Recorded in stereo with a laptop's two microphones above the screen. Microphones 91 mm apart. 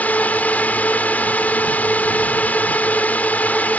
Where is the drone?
15° left (ahead or behind).